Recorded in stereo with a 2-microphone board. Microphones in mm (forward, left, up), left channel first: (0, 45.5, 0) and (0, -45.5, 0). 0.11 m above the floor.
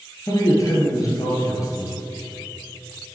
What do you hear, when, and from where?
0.3 s a man speaking: 40° left (ahead or behind), 1.7 m